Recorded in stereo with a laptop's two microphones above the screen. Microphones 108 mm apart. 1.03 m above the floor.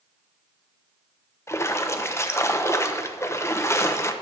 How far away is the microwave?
I don't hear a microwave.